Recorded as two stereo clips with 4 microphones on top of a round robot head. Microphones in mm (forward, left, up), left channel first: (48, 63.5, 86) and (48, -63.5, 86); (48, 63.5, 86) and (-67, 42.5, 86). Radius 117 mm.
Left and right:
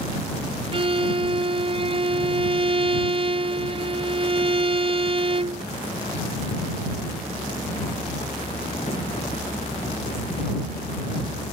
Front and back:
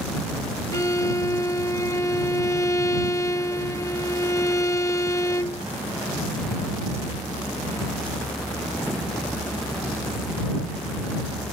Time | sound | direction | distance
0.7 | a violin | 50° right | ?